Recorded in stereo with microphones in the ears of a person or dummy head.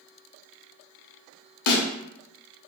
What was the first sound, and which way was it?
A snare drum, 75° left (ahead or behind).